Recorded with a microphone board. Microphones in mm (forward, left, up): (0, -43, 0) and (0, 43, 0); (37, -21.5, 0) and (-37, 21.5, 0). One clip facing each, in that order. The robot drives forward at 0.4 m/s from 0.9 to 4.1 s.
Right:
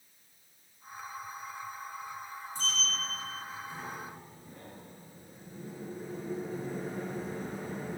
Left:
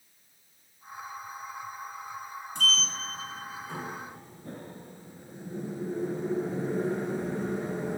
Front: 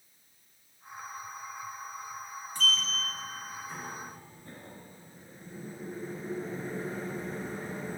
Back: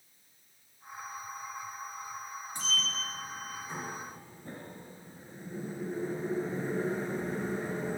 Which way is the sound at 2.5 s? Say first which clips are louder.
Left 5 dB, front 4 dB; 85° left.